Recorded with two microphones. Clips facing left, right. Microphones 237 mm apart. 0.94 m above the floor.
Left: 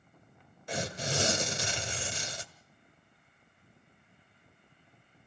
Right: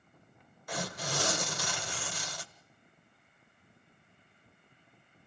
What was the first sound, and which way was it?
Tearing paper, 25° left (ahead or behind).